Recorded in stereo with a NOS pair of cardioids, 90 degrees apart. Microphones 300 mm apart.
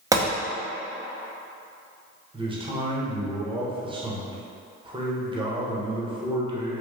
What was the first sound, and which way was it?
A gunshot, 10° right.